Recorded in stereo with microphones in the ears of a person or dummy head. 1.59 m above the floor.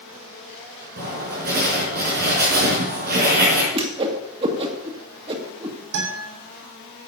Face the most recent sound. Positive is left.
turn(degrees=-80)